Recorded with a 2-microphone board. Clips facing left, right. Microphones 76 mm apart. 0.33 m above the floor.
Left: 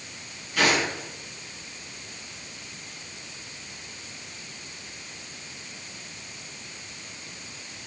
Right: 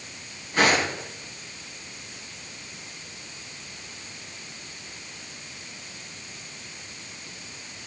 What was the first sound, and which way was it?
Footsteps, 35° right (ahead or behind).